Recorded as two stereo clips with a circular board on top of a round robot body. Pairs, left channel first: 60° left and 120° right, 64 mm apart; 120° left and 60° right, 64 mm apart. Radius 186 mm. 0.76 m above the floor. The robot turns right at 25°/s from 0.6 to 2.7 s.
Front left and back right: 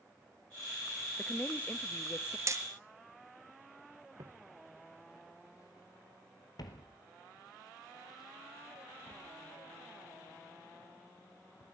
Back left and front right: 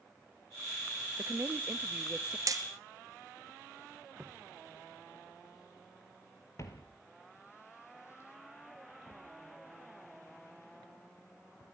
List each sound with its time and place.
1.2 s a woman speaking: 10° right, 1.1 m; by 2.4 s 20° left, 1.1 m
2.5 s hammering: 85° right, 1.9 m; by 2.6 s 80° right, 1.9 m
4.2 s footsteps: 125° right, 1.0 m; by 11.7 s 70° left, 5 m